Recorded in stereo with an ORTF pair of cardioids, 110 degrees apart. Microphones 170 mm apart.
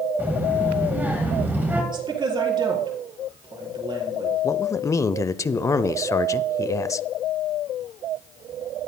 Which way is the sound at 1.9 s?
25° right.